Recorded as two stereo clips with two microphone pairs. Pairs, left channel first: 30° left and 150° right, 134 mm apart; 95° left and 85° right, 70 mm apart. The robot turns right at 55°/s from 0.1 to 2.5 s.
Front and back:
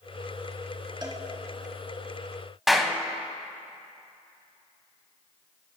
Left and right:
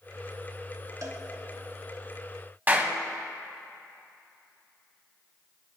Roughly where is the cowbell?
Right.